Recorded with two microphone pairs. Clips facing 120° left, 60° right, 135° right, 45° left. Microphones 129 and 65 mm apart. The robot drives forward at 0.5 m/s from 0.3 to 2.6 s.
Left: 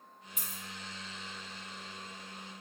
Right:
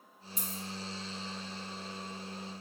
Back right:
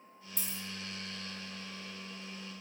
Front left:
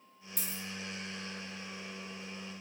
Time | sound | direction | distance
0.4 | a dropped coin | 90° right | 0.6 m